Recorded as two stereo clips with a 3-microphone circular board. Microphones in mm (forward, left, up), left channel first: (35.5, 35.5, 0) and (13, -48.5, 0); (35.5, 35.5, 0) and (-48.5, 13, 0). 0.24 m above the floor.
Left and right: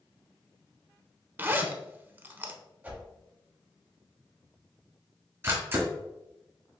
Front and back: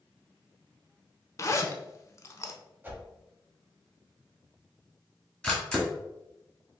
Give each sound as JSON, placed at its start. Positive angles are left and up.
{"t": 1.4, "sound": "a zipper", "azimuth_deg": -40, "distance_m": 0.6}
{"t": 2.8, "sound": "a whoosh", "azimuth_deg": -140, "distance_m": 0.8}
{"t": 5.4, "sound": "a camera shutter", "azimuth_deg": -65, "distance_m": 1.4}